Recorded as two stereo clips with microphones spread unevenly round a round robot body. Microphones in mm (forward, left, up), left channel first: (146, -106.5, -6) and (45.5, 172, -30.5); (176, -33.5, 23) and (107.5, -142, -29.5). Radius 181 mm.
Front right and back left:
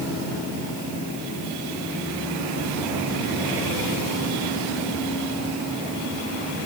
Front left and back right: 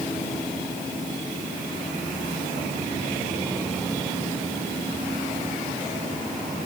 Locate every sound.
Only background noise.